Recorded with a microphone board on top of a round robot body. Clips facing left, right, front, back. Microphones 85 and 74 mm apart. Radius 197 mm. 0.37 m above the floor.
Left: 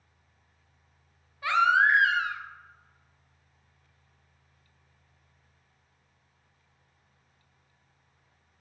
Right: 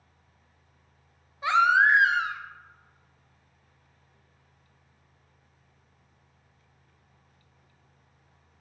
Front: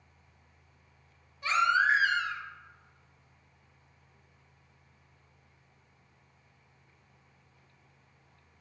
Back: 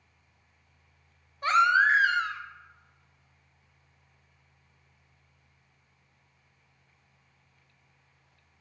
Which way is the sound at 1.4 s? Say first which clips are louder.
Right 2 dB, back 4 dB; 155° right.